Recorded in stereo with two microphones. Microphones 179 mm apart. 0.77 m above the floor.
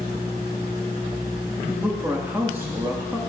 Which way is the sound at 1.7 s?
15° right (ahead or behind).